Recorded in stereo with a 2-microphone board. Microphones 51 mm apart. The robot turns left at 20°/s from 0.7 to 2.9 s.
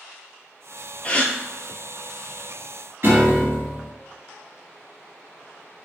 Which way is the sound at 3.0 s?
50° right (ahead or behind).